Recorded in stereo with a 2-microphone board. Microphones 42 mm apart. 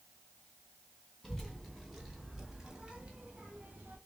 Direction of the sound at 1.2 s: 5° left (ahead or behind).